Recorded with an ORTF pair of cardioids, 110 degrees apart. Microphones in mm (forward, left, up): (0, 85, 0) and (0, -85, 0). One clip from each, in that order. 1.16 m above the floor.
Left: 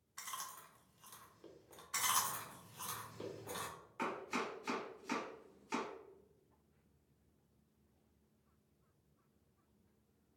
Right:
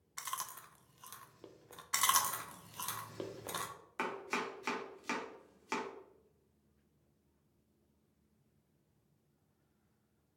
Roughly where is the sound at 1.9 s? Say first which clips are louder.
Right 5 dB; ahead right.